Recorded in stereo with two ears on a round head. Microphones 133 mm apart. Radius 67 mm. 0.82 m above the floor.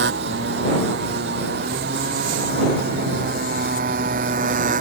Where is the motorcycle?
85° right; by 4.8 s 55° right (ahead or behind).